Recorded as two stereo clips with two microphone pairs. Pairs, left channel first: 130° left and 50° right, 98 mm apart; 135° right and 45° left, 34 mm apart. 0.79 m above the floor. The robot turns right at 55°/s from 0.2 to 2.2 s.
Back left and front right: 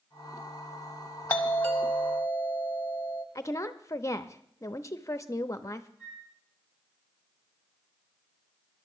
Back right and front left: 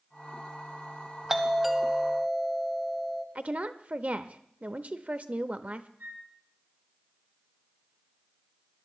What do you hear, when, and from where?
1.3 s a doorbell: 100° left, 1.1 m; by 3.2 s 150° left, 1.1 m
3.4 s a woman speaking: 75° left, 0.7 m
6.0 s a flute: 30° left, 9.5 m